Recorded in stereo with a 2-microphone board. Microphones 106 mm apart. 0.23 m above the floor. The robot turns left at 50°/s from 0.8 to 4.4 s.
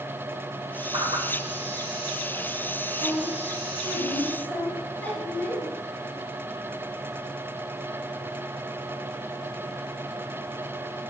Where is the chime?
No chime in this recording.